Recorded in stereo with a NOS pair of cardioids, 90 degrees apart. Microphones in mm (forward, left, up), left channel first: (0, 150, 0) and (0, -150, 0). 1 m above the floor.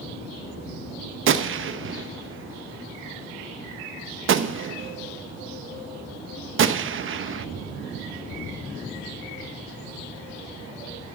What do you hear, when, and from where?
1.3 s a gunshot: 45° right, 0.8 m